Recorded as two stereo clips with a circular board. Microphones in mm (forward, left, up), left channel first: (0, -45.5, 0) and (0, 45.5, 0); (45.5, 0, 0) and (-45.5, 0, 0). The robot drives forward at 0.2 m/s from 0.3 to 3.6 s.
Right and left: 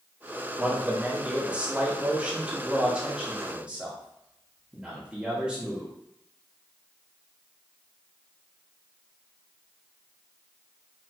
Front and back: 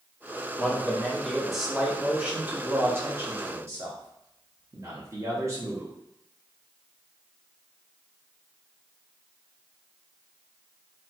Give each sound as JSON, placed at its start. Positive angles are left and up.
{"t": 0.6, "sound": "a man speaking", "azimuth_deg": 40, "distance_m": 0.7}